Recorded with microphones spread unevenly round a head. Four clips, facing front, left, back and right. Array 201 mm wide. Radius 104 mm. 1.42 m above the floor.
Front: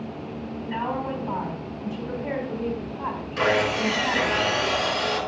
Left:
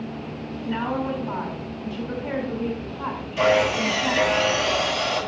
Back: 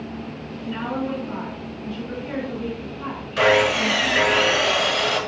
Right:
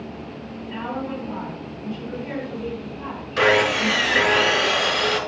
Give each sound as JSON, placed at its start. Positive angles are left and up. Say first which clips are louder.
{"t": 0.6, "sound": "a woman speaking", "louder": "left 3 dB, back 2 dB", "azimuth_deg": 20, "distance_m": 5.5}
{"t": 3.4, "sound": "sawing", "louder": "right 1 dB, back 5 dB", "azimuth_deg": -100, "distance_m": 5.0}